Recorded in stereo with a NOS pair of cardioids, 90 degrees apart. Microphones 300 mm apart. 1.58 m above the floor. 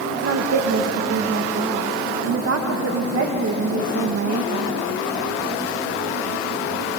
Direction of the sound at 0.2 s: 55° right.